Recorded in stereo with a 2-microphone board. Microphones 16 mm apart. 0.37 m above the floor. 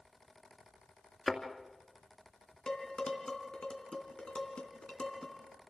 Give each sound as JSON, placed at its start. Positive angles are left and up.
{"t": 1.3, "sound": "a thud", "side_deg": 15, "distance_m": 2.0}
{"t": 2.7, "sound": "dishes clattering", "side_deg": 60, "distance_m": 2.5}